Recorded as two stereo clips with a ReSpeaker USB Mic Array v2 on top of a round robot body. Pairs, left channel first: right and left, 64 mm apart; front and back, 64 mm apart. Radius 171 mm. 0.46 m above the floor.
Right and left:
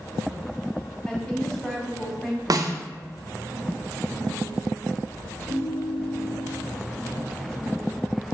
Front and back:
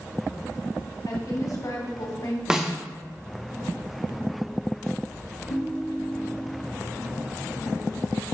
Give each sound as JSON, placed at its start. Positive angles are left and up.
{"t": 1.1, "sound": "a woman speaking", "azimuth_deg": -10, "distance_m": 1.9}
{"t": 2.5, "sound": "a snare drum", "azimuth_deg": 100, "distance_m": 0.8}
{"t": 5.5, "sound": "a ringtone", "azimuth_deg": 45, "distance_m": 1.3}